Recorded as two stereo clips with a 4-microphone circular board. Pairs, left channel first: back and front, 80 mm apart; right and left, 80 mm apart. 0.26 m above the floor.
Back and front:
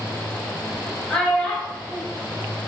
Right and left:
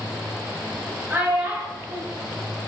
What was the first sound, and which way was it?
A child speaking, 115° left.